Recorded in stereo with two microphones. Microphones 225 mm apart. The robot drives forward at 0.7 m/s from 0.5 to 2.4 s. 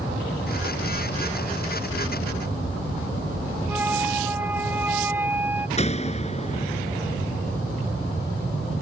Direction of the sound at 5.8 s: 30° left (ahead or behind).